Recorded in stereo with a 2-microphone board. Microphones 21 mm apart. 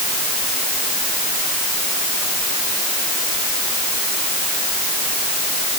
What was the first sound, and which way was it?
Only background noise.